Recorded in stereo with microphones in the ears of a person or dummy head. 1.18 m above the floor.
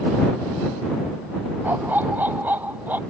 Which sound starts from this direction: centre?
A dog barking, at 1.6 s.